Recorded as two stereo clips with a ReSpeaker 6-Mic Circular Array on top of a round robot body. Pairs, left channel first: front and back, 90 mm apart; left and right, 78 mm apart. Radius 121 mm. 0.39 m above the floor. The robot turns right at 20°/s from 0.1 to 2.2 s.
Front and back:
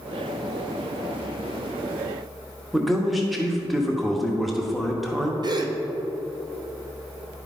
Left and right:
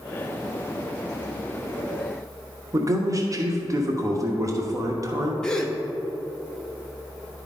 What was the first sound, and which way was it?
A man speaking, 90° right.